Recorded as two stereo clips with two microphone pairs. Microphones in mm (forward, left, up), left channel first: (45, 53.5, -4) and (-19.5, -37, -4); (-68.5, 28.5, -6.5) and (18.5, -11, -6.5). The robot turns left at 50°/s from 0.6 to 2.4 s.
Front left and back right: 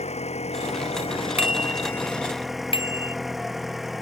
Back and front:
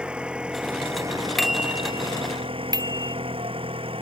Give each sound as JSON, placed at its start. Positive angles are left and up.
{"t": 0.0, "sound": "an engine running", "azimuth_deg": 55}
{"t": 1.4, "sound": "a bicycle bell", "azimuth_deg": 70}